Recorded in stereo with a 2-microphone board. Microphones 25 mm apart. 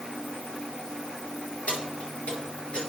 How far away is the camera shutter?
I don't hear a camera shutter.